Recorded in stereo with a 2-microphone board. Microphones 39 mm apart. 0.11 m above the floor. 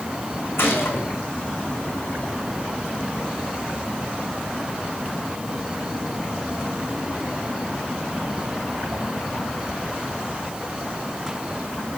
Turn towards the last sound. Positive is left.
turn(degrees=75)  # may be behind; listen again after turning